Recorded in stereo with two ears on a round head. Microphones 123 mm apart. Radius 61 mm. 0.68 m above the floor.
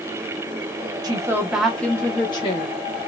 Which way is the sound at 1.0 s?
30° right (ahead or behind).